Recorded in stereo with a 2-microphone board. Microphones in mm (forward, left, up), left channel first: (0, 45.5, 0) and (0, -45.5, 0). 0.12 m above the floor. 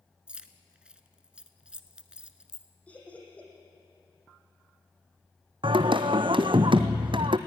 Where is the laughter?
15° left (ahead or behind), 5.5 m.